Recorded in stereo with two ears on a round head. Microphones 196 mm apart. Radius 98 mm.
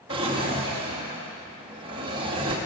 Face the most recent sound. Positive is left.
turn(degrees=-25)  # may be behind; listen again after turning